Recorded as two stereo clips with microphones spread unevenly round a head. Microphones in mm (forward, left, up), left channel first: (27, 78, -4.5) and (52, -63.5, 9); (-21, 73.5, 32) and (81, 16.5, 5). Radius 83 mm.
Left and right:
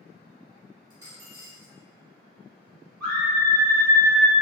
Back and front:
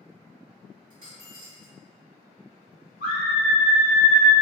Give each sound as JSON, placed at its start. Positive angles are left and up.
{"t": 0.9, "sound": "a dropped coin", "azimuth_deg": -45, "distance_m": 1.3}
{"t": 3.0, "sound": "a scream", "azimuth_deg": -170, "distance_m": 1.4}